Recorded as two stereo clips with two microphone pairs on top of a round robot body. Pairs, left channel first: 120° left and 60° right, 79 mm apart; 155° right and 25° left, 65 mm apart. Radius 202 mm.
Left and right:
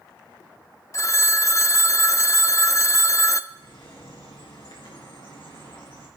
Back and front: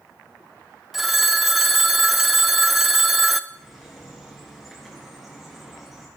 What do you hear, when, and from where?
0.9 s a phone ringing: 115° left, 0.7 m
3.5 s a bird: 115° left, 4.5 m